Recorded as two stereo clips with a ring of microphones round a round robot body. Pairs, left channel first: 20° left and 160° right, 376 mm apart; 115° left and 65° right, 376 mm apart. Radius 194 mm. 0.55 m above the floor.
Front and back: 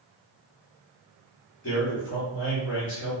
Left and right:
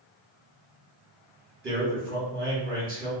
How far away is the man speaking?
About 1.4 m.